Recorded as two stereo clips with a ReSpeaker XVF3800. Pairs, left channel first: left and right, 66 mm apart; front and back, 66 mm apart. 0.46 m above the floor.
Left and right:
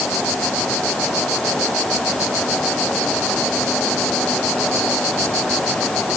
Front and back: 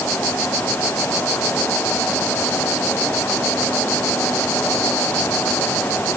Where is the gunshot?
No gunshot in this recording.